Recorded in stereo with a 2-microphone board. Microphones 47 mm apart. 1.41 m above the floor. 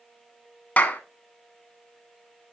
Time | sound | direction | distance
0.8 | a clap | 40° left (ahead or behind) | 1.2 m